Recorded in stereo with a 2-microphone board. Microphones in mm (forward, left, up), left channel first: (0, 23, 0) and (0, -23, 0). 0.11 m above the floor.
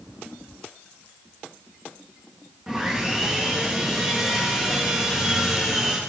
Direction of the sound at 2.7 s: 15° right (ahead or behind).